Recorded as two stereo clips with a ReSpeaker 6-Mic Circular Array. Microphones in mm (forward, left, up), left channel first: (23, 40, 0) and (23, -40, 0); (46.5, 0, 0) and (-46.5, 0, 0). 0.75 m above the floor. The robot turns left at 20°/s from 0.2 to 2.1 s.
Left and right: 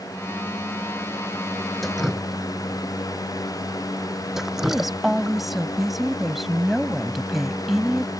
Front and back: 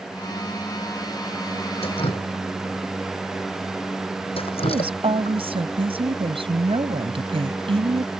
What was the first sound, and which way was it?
Dripping, straight ahead.